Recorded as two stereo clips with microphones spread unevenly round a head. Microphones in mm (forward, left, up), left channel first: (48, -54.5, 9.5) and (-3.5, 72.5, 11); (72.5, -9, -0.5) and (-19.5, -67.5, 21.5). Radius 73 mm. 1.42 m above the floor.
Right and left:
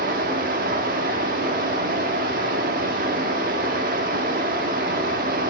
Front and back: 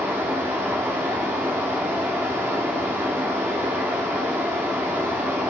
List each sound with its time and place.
0.0 s running water: 140° left, 1.6 m